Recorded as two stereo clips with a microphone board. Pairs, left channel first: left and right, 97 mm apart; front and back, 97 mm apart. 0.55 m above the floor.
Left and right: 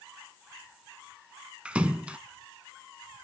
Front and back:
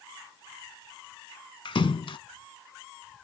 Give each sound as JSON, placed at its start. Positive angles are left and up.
{"t": 1.6, "sound": "a splash", "azimuth_deg": -15, "distance_m": 0.8}